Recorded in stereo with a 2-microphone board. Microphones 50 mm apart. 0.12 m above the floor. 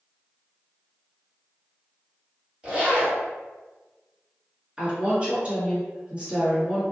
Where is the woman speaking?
25° right (ahead or behind), 1.8 m.